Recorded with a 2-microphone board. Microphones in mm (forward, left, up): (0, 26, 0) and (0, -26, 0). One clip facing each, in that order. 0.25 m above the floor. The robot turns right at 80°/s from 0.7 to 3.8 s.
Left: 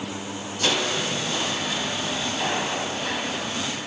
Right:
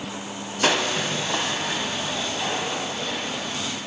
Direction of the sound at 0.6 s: 120° right.